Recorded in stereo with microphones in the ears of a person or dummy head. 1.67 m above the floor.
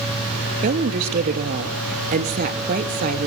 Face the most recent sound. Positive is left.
turn(degrees=-50)  # may be behind; listen again after turning